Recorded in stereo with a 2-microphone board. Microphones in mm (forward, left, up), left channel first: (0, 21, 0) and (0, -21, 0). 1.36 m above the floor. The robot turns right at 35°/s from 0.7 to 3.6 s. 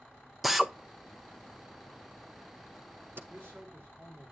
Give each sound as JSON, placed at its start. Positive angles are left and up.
{"t": 0.4, "sound": "a drill", "side_deg": -5, "distance_m": 0.6}
{"t": 3.3, "sound": "a man speaking", "side_deg": -70, "distance_m": 5.0}